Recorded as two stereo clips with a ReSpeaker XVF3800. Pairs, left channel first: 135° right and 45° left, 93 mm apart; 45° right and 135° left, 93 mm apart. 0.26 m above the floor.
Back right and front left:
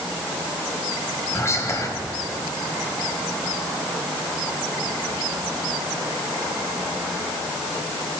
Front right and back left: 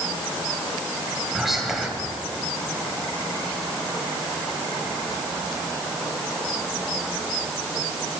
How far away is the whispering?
About 1.2 m.